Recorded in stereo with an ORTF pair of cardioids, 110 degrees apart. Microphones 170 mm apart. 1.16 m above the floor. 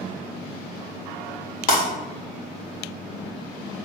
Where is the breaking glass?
45° left, 1.8 m.